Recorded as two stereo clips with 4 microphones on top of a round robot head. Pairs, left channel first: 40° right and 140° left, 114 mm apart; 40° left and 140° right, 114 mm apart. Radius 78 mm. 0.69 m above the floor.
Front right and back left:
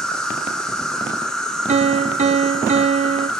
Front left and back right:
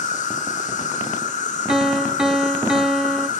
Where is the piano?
135° left, 0.8 m.